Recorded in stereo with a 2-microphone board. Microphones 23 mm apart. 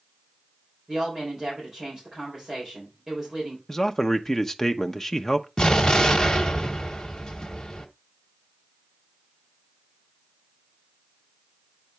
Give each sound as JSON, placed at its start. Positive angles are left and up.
{"t": 0.9, "sound": "a woman speaking", "side_deg": -25, "distance_m": 4.5}
{"t": 3.7, "sound": "a man speaking", "side_deg": 20, "distance_m": 0.8}
{"t": 5.6, "sound": "an explosion", "side_deg": 30, "distance_m": 1.2}